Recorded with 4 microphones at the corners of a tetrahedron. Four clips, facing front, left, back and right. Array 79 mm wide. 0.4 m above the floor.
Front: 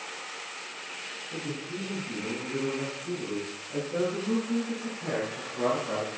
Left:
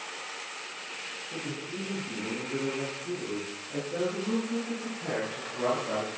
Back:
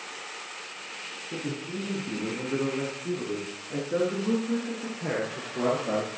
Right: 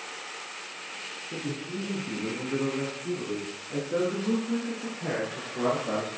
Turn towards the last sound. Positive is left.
turn(degrees=-155)